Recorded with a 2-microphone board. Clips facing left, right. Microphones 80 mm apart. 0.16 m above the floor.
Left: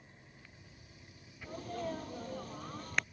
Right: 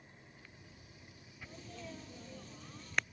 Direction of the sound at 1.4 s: 50° left (ahead or behind).